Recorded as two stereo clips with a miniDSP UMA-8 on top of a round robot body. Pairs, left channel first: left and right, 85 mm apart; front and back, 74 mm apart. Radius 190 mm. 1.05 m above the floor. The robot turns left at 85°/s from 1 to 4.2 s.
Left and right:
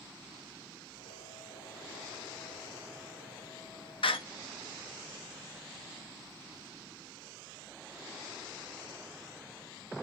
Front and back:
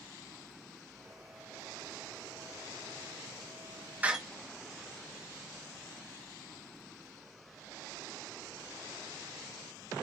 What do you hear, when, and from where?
4.0 s a door slam: 110° left, 1.0 m; by 4.2 s 95° left, 1.0 m